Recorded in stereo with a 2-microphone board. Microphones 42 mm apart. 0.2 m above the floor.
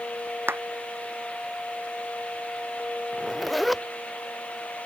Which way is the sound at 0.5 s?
60° right (ahead or behind).